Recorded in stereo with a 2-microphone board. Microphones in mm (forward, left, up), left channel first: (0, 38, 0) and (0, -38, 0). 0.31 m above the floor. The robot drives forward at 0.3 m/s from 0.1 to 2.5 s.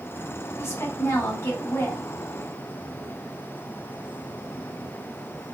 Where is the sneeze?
No sneeze in this recording.